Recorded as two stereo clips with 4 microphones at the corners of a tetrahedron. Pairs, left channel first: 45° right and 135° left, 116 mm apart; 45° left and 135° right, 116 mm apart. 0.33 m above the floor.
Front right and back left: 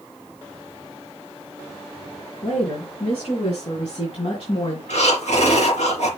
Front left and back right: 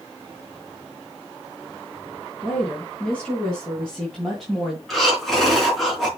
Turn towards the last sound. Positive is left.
turn(degrees=-45)